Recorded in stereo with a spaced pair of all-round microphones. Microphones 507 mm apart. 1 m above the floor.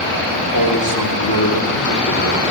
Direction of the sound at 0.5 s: 40° left (ahead or behind).